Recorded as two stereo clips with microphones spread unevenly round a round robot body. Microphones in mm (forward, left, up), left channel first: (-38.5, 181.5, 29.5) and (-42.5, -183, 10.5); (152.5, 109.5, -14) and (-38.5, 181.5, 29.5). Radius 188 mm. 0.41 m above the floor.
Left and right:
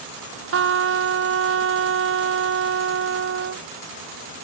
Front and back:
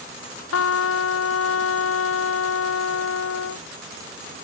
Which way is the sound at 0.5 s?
30° right.